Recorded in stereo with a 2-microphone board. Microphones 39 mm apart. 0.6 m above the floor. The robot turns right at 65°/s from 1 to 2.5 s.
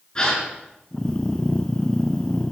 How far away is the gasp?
About 6.5 m.